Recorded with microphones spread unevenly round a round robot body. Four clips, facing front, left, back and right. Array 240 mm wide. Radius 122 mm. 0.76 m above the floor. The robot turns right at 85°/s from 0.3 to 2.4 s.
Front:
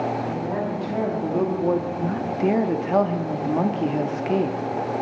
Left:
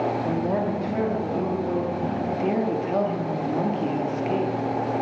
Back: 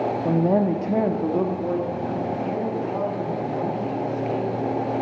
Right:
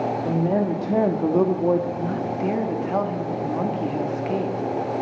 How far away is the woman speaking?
About 1.4 m.